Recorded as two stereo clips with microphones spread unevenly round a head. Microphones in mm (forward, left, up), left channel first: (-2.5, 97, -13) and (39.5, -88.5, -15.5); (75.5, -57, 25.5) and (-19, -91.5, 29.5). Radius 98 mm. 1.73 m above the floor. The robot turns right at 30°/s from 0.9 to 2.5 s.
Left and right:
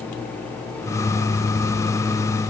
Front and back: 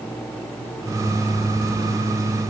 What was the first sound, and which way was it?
Only background noise.